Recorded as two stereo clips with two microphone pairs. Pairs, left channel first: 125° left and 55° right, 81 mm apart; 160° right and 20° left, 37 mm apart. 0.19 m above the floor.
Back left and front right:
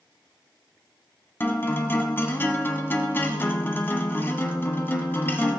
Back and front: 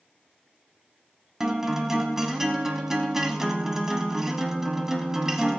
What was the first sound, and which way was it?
A guitar, 90° left.